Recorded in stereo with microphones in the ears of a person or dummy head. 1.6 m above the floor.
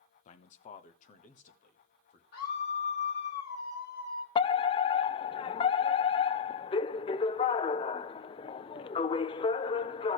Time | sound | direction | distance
0.2 | a man speaking | 45° left (ahead or behind) | 0.9 m
2.3 | a scream | 70° left (ahead or behind) | 3.5 m
4.3 | a fire alarm | 30° left (ahead or behind) | 0.5 m